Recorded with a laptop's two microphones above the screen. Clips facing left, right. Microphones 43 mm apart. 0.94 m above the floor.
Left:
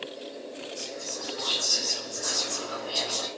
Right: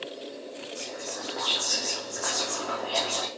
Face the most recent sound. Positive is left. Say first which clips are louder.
# right 1 dB
turn(degrees=-70)  # may be behind; listen again after turning